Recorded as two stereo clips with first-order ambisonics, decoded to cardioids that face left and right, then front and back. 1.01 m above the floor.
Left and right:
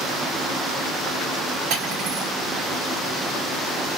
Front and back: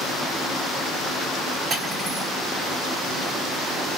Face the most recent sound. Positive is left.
turn(degrees=-120)